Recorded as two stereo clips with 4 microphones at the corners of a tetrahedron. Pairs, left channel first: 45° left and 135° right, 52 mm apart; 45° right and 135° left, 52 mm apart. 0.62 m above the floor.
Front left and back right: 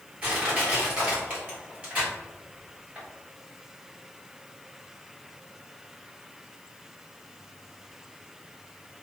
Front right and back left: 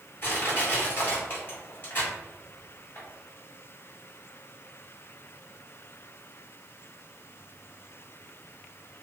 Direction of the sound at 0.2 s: 75° right.